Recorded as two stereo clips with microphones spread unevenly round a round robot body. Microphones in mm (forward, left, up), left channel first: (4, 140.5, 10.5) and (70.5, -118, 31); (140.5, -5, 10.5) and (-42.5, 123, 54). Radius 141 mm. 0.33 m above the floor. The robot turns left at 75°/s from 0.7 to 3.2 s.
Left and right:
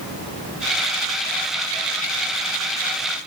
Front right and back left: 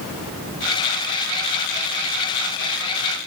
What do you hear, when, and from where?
Only background noise.